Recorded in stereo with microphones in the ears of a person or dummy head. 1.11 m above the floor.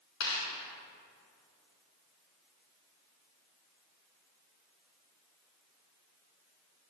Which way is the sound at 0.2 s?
55° left (ahead or behind).